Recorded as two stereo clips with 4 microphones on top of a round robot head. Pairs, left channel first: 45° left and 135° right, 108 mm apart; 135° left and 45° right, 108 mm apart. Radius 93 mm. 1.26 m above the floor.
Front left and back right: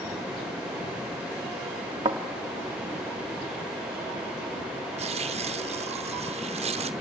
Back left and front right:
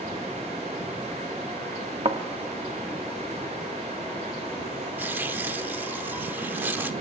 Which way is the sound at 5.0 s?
115° right.